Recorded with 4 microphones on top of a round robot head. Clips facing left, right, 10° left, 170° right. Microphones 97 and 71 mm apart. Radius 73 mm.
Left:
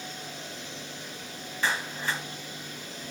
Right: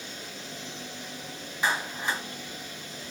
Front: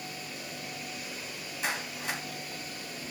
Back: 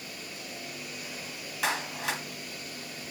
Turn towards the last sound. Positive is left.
turn(degrees=-165)